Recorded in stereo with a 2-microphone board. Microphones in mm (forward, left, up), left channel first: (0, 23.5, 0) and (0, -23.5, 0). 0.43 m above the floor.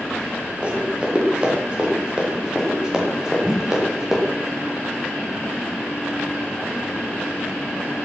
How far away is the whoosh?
About 2.5 m.